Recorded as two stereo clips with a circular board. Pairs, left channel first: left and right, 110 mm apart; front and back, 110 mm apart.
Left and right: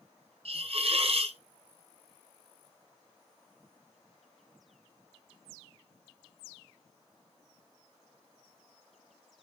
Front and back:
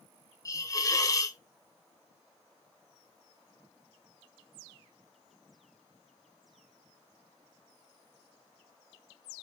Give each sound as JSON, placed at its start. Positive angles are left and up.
{"t": 0.5, "sound": "a hiss", "azimuth_deg": -60, "distance_m": 1.0}